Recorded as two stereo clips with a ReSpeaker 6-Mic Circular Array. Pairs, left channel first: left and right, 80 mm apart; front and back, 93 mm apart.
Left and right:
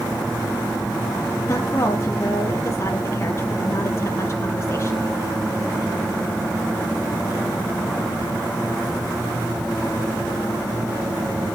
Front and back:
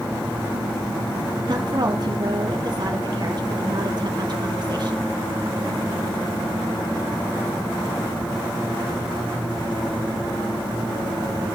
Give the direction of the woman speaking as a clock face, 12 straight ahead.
7 o'clock.